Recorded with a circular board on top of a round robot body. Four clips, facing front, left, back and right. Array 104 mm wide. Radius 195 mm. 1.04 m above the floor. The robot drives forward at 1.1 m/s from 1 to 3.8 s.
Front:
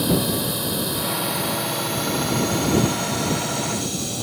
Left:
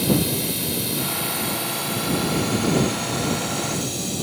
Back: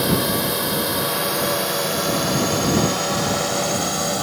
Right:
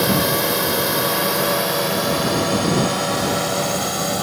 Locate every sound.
0.0 s a drone: 115° right; by 4.2 s 130° right